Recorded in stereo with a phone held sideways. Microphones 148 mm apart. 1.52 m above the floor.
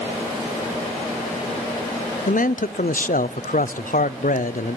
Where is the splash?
No splash in this recording.